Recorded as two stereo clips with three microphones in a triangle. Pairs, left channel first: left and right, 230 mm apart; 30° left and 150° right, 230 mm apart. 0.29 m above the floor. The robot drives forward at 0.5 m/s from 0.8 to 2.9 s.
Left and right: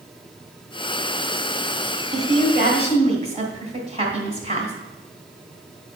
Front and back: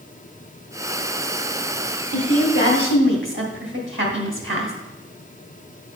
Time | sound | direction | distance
2.1 | a woman speaking | 140° right | 1.9 m